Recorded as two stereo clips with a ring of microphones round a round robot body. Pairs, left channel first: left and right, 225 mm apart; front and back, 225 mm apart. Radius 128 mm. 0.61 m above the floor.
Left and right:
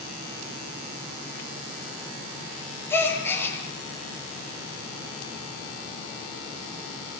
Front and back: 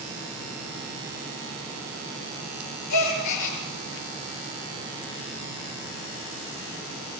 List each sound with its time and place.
2.9 s a gasp: 10° left, 6 m